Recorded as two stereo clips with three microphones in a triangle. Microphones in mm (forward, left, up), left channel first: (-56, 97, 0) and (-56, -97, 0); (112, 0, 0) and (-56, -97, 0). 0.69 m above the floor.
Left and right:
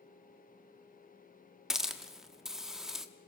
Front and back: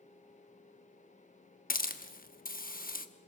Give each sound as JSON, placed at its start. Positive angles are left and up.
{"t": 1.7, "sound": "a hiss", "azimuth_deg": -5, "distance_m": 0.9}